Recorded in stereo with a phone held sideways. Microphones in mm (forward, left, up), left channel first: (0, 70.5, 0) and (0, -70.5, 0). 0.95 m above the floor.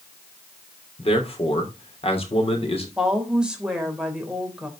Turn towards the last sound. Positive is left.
turn(degrees=-5)  # may be behind; listen again after turning